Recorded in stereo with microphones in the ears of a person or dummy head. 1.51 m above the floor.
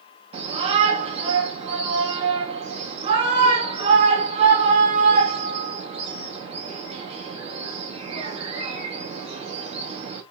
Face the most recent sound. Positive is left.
turn(degrees=-35)  # may be behind; listen again after turning